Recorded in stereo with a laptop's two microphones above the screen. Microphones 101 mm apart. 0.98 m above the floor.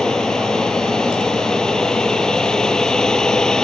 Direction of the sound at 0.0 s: 5° left (ahead or behind).